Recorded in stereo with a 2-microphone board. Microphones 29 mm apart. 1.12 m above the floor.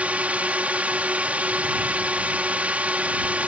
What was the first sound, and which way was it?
A drone, 60° right (ahead or behind).